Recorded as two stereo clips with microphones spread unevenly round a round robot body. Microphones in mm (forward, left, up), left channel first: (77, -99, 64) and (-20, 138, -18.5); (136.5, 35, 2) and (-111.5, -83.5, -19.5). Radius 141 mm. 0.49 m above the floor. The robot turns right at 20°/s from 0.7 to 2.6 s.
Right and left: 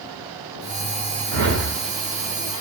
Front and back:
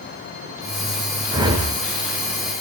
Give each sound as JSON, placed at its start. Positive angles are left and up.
{"t": 1.3, "sound": "a whoosh", "azimuth_deg": 130, "distance_m": 1.1}